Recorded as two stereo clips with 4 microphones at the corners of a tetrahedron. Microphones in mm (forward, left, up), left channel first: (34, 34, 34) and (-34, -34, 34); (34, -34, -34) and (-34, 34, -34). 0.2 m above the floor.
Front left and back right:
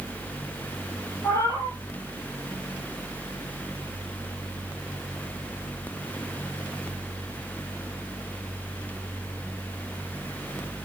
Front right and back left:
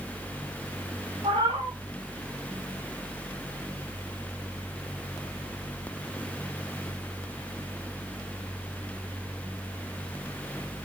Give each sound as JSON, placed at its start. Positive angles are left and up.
{"t": 1.2, "sound": "a cat meowing", "azimuth_deg": 105, "distance_m": 3.5}